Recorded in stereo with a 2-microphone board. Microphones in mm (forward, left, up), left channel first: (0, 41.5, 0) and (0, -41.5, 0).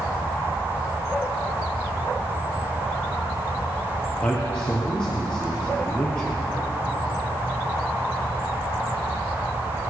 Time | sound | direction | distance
4.2 | a man speaking | 15° left (ahead or behind) | 3 m